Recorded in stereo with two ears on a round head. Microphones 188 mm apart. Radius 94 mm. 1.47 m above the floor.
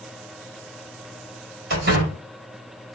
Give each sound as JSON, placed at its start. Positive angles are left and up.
{"t": 1.7, "sound": "a door slam", "side_deg": -50, "distance_m": 4.5}